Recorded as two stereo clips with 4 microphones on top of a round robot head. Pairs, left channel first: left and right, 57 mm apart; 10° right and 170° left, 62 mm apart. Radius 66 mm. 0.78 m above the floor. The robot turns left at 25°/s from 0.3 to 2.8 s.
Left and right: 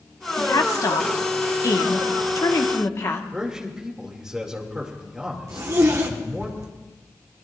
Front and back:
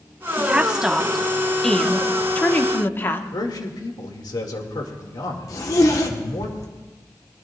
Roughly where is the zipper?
Ahead right.